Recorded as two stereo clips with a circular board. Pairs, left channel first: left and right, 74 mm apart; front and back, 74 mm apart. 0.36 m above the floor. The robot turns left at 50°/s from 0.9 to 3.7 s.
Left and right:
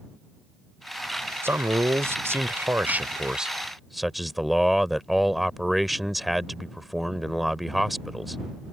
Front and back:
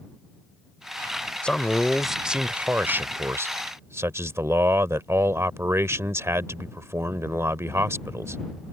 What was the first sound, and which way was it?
A man speaking, 65° right.